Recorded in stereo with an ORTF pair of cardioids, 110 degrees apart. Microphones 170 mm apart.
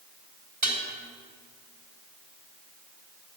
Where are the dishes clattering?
50° right, 4 m.